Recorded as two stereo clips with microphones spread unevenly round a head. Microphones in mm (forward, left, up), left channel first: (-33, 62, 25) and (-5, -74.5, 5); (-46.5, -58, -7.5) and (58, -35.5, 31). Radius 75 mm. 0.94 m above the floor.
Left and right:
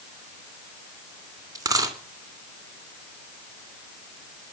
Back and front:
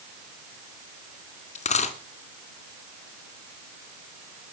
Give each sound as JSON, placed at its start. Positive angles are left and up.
{"t": 1.6, "sound": "a dropped coin", "azimuth_deg": -145, "distance_m": 3.0}